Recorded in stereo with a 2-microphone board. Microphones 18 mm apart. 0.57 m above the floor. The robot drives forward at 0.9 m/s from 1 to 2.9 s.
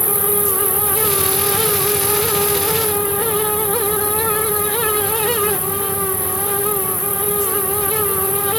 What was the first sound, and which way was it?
An insect, 5° right (ahead or behind).